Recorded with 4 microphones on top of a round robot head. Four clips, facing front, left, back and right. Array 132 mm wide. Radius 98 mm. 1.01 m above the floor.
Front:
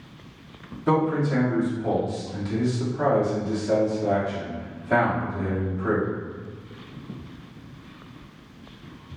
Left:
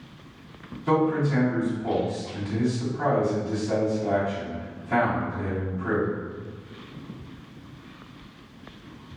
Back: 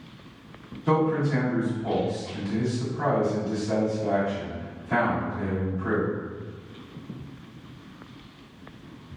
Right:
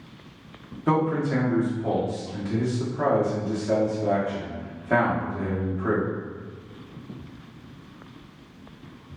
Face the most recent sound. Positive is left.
turn(degrees=-65)